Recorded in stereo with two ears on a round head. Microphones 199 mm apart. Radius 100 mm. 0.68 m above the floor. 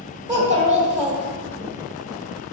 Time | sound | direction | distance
0.3 | a child speaking | 35° right (ahead or behind) | 1.7 m